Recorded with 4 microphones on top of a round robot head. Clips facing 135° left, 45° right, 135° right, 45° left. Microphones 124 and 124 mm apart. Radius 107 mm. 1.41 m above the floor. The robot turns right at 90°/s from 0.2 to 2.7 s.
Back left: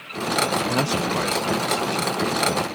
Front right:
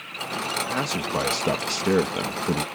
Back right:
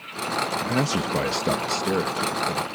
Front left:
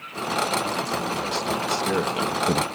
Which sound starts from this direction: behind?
A man speaking, at 0.6 s.